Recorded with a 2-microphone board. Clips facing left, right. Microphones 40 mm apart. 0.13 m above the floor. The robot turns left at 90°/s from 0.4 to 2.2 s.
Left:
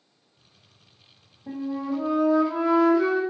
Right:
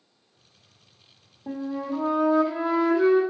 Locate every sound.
1.5 s a flute: 80° right, 1.2 m; by 3.2 s 145° right, 1.2 m